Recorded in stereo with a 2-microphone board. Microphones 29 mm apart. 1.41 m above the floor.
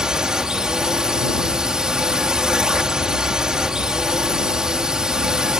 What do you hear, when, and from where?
0.0 s a drone: 25° right (ahead or behind)